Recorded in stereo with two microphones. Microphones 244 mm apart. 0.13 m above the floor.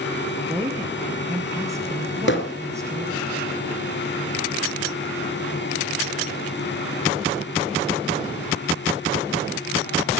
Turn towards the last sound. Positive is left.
turn(degrees=50)  # may be behind; listen again after turning